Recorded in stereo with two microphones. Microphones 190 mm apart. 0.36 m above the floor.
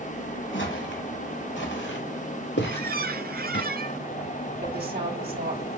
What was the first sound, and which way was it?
Footsteps, 85° left.